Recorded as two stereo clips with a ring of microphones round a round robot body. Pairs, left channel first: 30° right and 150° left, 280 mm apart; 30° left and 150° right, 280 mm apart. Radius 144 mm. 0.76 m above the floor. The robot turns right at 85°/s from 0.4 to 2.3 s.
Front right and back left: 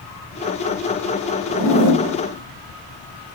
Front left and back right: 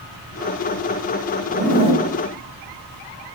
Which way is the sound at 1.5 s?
40° right.